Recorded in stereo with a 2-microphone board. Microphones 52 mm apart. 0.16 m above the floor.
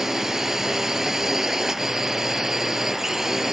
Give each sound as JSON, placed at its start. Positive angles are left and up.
{"t": 0.0, "sound": "a drone", "side_deg": -5}